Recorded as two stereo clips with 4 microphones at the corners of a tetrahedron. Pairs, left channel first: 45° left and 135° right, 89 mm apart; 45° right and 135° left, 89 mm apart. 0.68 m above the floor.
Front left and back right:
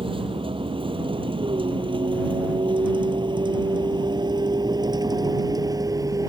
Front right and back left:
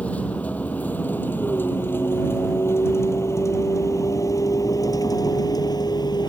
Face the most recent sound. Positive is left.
turn(degrees=-85)